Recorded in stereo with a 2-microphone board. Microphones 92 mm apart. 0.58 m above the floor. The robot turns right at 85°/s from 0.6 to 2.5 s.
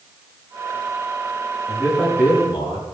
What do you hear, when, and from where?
1.7 s a man speaking: 25° right, 7.5 m; by 2.9 s 45° left, 7.5 m